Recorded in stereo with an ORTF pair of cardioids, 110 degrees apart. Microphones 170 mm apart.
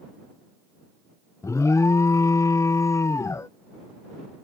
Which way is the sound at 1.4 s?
20° left.